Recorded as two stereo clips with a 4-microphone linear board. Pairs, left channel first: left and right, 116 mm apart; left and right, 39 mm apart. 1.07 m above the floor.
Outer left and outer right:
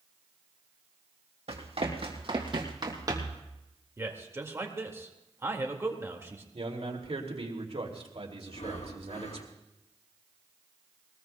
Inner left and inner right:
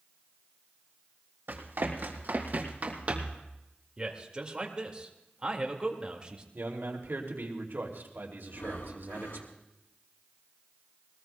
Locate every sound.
1.5 s running footsteps: 65° right (ahead or behind), 3 m; by 3.4 s 25° right (ahead or behind), 2.5 m
4.0 s a man speaking: 25° right (ahead or behind), 1.8 m
6.5 s a man speaking: 60° right (ahead or behind), 2.5 m
8.5 s breathing: 75° left (ahead or behind), 1.3 m